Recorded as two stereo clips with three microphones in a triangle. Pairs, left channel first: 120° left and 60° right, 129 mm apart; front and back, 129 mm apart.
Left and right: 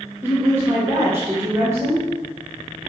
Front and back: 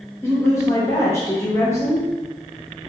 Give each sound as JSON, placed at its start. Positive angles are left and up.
{"t": 0.2, "sound": "a woman speaking", "azimuth_deg": -25, "distance_m": 0.9}